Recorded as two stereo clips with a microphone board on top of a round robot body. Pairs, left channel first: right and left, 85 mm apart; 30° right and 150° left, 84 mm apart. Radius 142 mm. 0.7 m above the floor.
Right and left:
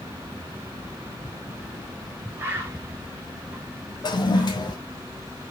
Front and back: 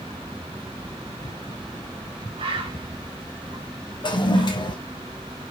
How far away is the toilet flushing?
About 3 m.